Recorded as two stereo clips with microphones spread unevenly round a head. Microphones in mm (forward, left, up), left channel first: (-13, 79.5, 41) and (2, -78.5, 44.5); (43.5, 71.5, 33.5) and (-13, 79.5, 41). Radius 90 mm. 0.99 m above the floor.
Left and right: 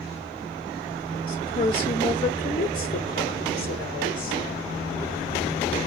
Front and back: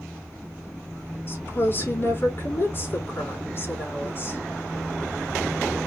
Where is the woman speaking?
35° left, 3 m.